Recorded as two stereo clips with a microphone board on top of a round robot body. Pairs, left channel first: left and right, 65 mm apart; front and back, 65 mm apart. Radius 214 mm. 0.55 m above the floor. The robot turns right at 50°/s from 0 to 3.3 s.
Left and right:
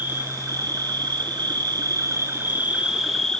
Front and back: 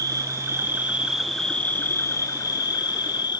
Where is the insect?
155° right, 1.1 m; by 3.4 s 10° left, 1.1 m.